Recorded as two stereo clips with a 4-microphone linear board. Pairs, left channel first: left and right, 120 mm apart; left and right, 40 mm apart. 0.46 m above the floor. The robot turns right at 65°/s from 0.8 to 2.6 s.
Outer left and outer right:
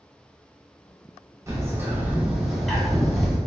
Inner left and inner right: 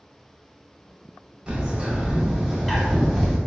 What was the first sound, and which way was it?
A bird, 25° right (ahead or behind).